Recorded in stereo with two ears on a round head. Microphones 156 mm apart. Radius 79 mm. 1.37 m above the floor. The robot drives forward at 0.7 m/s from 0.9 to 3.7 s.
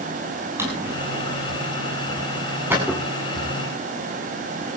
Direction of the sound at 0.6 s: 15° right (ahead or behind).